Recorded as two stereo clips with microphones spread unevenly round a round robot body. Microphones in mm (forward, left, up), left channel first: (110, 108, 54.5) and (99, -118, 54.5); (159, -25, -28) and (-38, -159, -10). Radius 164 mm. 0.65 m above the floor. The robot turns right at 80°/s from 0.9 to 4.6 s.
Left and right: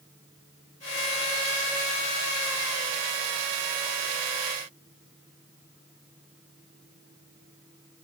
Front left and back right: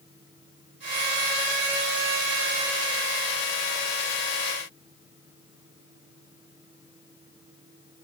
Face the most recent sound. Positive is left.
No sound to turn to.